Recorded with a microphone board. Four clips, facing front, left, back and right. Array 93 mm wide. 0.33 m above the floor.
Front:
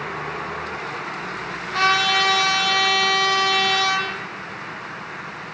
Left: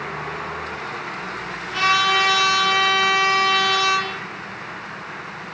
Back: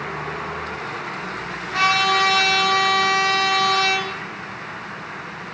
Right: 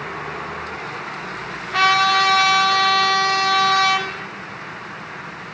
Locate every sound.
1.7 s a trumpet: 105° right, 2.5 m